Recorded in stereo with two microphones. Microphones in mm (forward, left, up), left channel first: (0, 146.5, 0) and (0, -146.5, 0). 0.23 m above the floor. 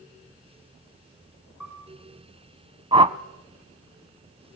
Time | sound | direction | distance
1.6 | a piano | 85° left | 8.5 m
2.9 | a whoosh | 20° right (ahead or behind) | 0.7 m